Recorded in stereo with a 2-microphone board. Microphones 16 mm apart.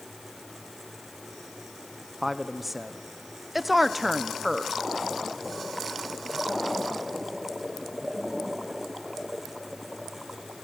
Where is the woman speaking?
15° right (ahead or behind), 0.9 m.